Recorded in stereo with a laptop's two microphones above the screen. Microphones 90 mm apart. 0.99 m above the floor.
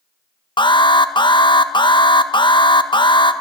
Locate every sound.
0.6 s an alarm: 60° left (ahead or behind), 0.8 m